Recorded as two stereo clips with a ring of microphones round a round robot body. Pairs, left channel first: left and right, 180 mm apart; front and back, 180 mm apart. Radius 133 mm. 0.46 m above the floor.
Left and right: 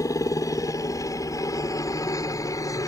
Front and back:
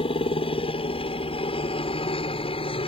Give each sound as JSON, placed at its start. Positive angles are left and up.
{"t": 0.0, "sound": "a helicopter", "azimuth_deg": 30}